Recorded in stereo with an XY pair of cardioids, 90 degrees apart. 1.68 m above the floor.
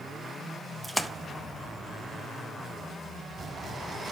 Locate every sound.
0.8 s a splash: straight ahead, 1.5 m